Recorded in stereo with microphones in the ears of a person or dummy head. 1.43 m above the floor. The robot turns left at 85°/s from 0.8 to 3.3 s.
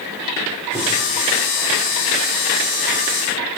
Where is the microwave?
10° right (ahead or behind), 0.9 m; by 0.8 s 5° right (ahead or behind), 0.9 m.